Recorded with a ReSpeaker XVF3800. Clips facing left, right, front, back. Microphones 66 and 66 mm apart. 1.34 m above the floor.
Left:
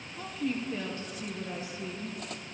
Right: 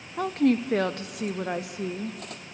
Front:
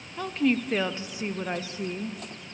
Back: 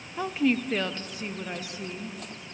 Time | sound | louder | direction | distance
0.2 | a woman speaking | right 11 dB, even | 105° right | 0.7 m